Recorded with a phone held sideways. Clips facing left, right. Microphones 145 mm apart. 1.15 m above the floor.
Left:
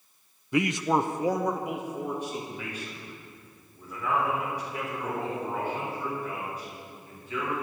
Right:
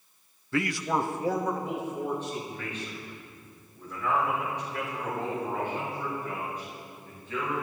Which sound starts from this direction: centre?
A man speaking, at 0.5 s.